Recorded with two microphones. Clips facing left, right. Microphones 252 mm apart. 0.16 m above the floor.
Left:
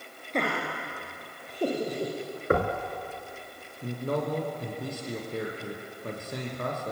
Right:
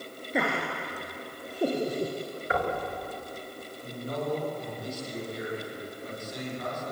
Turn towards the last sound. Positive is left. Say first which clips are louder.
# left 4 dB
turn(degrees=55)  # may be behind; listen again after turning